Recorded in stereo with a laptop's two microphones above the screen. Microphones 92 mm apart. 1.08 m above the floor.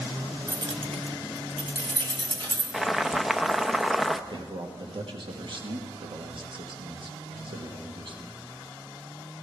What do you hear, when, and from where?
0.5 s keys jangling: 30° right (ahead or behind), 0.7 m; by 2.6 s 55° right (ahead or behind), 3 m
2.7 s boiling: 5° right (ahead or behind), 0.6 m
4.3 s a man speaking: 55° right (ahead or behind), 1.5 m